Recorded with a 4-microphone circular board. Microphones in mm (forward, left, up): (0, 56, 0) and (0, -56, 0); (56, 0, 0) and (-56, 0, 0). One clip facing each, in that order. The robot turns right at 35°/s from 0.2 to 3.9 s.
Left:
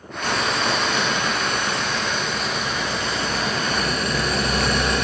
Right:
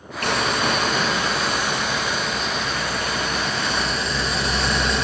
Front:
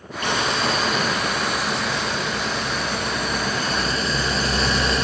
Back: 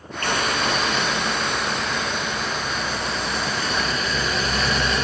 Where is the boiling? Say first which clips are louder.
Right 1 dB, front 1 dB; 75° right, 4.5 m; by 5.0 s 55° left, 4.5 m.